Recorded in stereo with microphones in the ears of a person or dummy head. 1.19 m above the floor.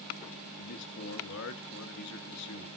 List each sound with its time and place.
0.6 s a man speaking: 55° left (ahead or behind), 1.6 m